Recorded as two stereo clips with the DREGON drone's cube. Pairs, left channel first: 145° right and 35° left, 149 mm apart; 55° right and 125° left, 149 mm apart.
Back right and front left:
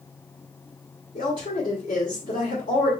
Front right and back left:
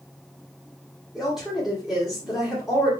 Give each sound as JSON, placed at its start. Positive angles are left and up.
{"t": 1.1, "sound": "a woman speaking", "azimuth_deg": -150, "distance_m": 2.0}